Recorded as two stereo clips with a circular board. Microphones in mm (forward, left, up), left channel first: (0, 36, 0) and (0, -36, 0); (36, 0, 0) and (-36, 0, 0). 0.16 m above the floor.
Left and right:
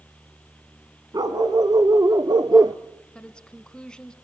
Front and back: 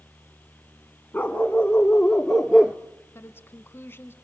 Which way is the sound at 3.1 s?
20° left.